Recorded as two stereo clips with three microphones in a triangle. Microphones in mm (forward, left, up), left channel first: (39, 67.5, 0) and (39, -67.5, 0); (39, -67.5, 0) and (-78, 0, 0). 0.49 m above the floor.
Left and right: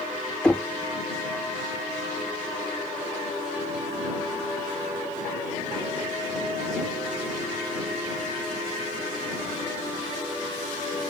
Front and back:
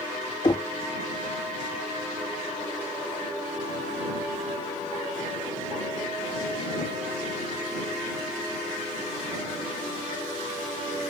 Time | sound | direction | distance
0.4 | knocking | 10° left | ?